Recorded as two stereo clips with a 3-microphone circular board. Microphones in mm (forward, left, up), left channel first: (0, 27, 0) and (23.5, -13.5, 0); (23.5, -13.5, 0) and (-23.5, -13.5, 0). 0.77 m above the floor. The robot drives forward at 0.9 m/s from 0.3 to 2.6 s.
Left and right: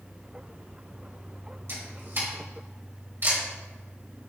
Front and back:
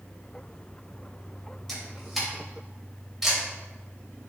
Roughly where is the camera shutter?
Right.